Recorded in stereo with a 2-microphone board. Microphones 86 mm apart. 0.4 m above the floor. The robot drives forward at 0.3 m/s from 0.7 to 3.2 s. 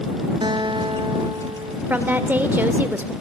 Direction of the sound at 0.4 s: 70° right (ahead or behind).